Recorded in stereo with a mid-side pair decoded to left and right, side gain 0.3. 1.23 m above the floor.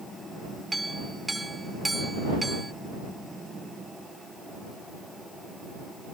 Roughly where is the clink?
Ahead right.